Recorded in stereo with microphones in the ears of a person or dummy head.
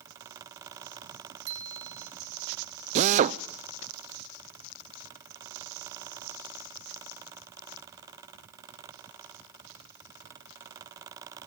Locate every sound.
1.5 s a bicycle bell: 70° right (ahead or behind), 4.5 m
3.0 s a drill: 40° right (ahead or behind), 0.6 m